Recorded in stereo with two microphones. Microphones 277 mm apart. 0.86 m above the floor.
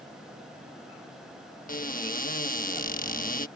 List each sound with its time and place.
1.7 s a cupboard door: 30° left (ahead or behind)